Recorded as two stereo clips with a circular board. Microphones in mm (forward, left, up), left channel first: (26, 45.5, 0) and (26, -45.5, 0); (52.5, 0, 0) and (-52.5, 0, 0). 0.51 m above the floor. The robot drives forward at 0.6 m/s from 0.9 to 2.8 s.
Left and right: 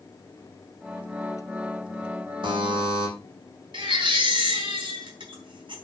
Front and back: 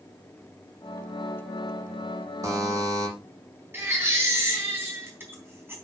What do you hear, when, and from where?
2.4 s a buzzer: 120° right, 6.5 m
3.7 s a baby crying: 110° right, 3.5 m